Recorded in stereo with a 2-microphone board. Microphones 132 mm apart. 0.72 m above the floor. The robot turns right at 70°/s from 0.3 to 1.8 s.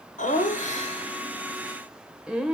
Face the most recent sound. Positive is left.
turn(degrees=-175)